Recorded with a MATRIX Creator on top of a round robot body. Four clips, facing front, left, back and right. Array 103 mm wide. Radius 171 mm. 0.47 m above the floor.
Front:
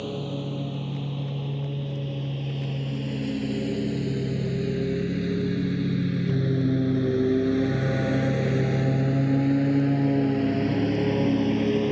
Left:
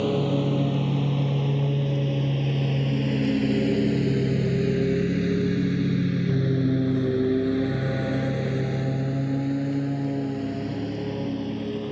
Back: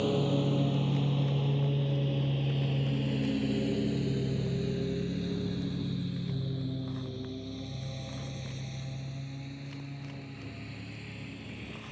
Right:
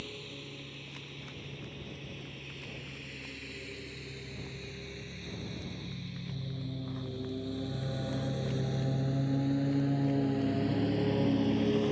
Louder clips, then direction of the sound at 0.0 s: Left 22 dB, back 3 dB; 100° left.